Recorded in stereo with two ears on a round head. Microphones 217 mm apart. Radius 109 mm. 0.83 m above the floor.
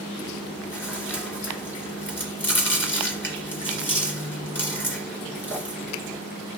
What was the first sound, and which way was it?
Chewing, 10° left (ahead or behind).